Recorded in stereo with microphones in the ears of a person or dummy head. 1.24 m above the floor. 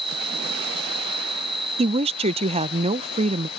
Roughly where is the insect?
Centre.